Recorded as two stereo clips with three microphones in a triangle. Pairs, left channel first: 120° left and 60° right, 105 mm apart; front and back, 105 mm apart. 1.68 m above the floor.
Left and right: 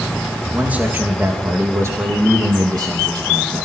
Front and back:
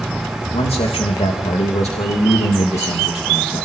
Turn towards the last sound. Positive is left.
turn(degrees=-20)